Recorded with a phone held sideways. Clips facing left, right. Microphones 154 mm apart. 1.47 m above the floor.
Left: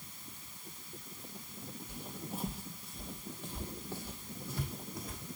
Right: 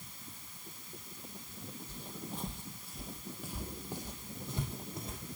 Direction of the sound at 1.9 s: 15° left (ahead or behind).